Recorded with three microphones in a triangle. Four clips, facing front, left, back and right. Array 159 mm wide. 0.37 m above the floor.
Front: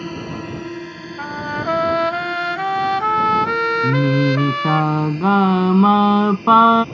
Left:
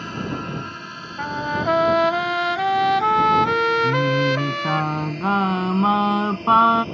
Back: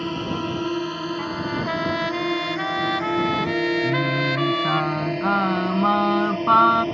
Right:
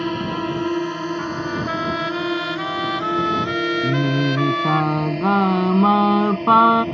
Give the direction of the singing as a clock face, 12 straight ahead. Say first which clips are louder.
Even, front 5 dB; 1 o'clock.